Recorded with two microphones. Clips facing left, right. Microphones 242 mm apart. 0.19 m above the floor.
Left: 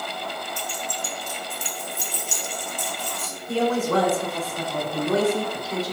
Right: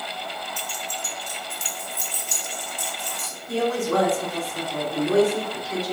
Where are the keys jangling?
5° right (ahead or behind), 0.8 m; by 3.3 s 70° right (ahead or behind), 2 m.